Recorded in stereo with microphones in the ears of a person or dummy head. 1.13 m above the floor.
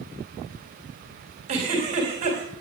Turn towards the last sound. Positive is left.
turn(degrees=-40)  # may be behind; listen again after turning